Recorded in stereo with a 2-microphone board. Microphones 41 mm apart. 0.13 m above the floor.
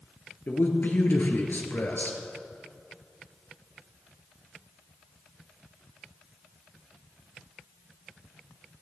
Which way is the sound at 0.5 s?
55° left (ahead or behind).